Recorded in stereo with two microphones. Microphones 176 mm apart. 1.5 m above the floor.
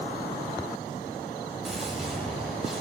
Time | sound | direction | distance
1.6 | a gunshot | centre (ahead or behind) | 7.5 m